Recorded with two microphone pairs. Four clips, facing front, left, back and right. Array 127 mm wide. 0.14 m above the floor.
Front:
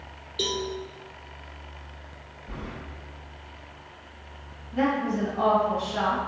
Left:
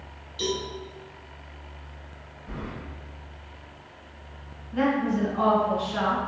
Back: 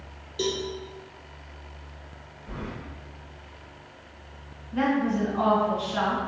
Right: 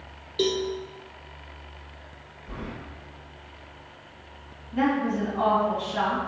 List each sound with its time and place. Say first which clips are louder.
0.4 s a cowbell: right 5 dB, back 2 dB; 90° right, 0.8 m
2.5 s keys jangling: even, back 2 dB; 155° left, 2.0 m
4.7 s a woman speaking: even, back 1 dB; 150° left, 1.4 m